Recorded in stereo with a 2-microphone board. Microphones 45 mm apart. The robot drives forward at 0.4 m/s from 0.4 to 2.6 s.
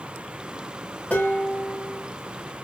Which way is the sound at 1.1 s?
45° left (ahead or behind).